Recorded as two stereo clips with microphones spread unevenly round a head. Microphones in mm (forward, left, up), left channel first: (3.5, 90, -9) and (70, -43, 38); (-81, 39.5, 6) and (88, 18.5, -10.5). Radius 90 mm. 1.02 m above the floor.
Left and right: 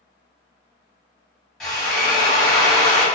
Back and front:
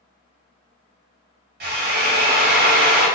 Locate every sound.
1.6 s a drill: 25° left, 0.9 m